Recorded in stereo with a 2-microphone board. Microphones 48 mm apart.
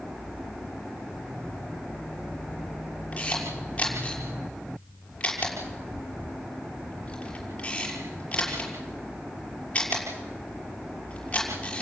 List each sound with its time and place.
3.1 s a camera shutter: 25° left (ahead or behind), 6 m